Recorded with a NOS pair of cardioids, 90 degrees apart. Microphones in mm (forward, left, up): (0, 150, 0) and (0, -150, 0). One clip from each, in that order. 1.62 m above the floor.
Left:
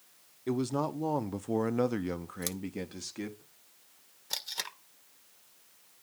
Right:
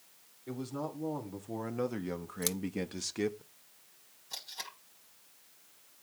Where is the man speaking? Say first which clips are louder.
Left 8 dB; 70° left, 1.4 m; by 3.4 s 30° right, 1.2 m.